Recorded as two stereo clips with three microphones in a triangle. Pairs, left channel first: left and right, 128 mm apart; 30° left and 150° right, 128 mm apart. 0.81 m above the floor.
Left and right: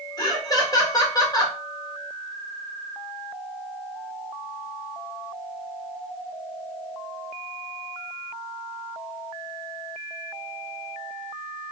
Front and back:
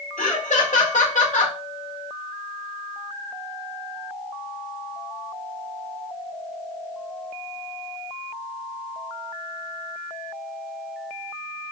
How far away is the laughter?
About 2 m.